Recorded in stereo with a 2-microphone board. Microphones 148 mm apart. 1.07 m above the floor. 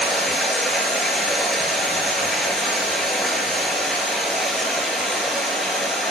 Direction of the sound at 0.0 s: Centre (ahead or behind).